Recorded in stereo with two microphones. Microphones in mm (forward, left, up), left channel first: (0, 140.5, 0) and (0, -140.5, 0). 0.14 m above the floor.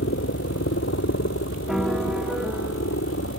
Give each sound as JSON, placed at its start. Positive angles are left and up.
{"t": 0.0, "sound": "a helicopter", "side_deg": 50}
{"t": 1.7, "sound": "a piano", "side_deg": 0}